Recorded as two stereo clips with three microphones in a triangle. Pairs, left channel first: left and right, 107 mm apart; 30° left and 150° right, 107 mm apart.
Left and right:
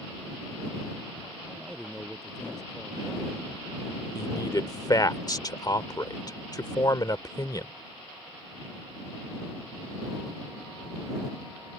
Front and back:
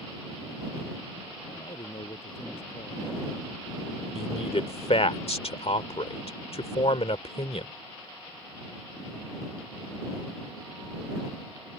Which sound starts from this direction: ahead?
A man speaking, at 1.4 s.